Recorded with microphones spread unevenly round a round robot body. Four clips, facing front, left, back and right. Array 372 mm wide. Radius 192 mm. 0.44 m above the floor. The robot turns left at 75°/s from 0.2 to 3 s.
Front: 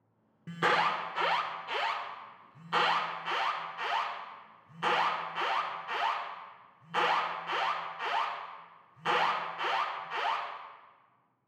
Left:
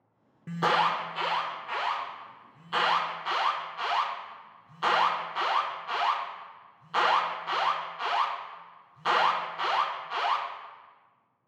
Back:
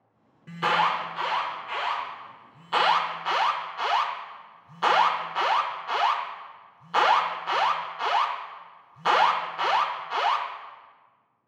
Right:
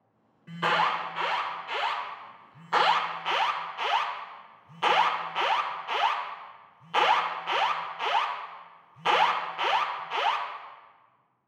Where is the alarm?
55° left, 0.7 m; by 10.5 s 135° right, 0.7 m.